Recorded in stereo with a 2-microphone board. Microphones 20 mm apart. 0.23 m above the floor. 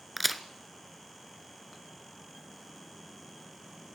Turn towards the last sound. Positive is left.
turn(degrees=0)  # may be behind; listen again after turning